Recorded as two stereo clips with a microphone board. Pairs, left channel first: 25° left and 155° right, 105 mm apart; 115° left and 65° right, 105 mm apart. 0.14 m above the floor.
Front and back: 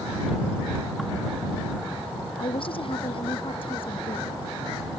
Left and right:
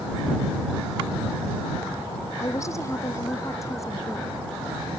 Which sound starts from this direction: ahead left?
A woman speaking, at 2.4 s.